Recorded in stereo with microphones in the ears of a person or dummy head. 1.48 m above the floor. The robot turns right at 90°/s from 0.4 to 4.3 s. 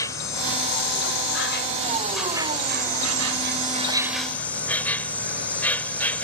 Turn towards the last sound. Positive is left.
turn(degrees=10)